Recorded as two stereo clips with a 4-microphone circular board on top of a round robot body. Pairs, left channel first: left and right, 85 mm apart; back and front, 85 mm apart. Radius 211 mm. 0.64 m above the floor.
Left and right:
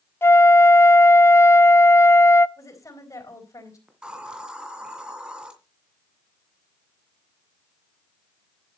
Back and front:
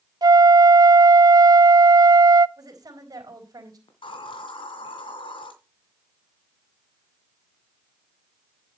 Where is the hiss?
170° right, 2.5 m.